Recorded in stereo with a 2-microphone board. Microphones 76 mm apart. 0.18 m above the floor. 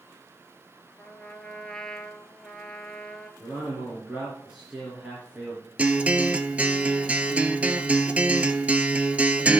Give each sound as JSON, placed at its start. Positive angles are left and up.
{"t": 1.0, "sound": "a trumpet", "side_deg": 5, "distance_m": 1.1}
{"t": 3.4, "sound": "a man speaking", "side_deg": -15, "distance_m": 3.0}
{"t": 5.8, "sound": "a guitar", "side_deg": -20, "distance_m": 0.6}